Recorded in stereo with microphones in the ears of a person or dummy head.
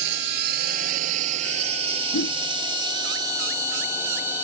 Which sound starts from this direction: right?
A drone, at 0.0 s.